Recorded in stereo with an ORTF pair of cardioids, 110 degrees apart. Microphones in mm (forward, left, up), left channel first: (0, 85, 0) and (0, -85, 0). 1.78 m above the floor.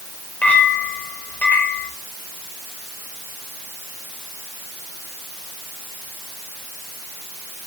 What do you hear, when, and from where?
0.4 s a clink: 10° left, 5.5 m